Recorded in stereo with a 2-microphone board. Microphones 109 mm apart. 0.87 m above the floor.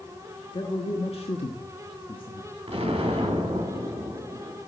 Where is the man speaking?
50° left (ahead or behind), 1.4 m; by 2.5 s 45° left (ahead or behind), 1.4 m.